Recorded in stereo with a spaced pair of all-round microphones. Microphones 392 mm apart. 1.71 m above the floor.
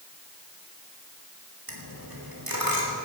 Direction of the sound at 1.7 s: 60° right (ahead or behind).